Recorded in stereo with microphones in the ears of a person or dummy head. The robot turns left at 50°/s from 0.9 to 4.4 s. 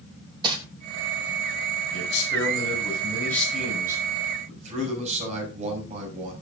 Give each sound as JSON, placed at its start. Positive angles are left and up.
{"t": 0.4, "sound": "crumpling", "side_deg": -25, "distance_m": 3.5}
{"t": 1.9, "sound": "a man speaking", "azimuth_deg": 80, "distance_m": 7.0}